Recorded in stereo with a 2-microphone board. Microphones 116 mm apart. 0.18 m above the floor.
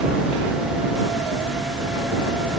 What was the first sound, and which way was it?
Only background noise.